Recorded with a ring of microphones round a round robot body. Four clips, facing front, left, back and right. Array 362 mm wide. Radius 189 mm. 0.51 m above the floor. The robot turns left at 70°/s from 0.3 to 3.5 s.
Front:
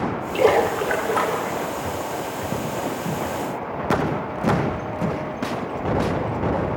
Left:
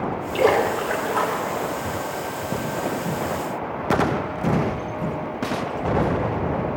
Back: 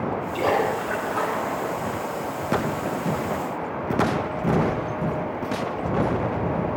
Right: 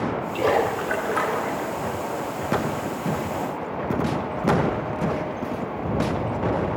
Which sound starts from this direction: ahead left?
A splash, at 0.3 s.